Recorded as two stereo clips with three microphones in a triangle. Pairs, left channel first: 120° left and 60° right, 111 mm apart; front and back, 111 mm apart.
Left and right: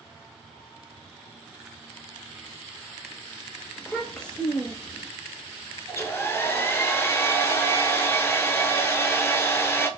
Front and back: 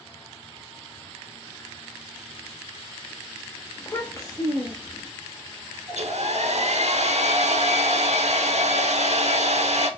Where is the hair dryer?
170° right, 0.5 m.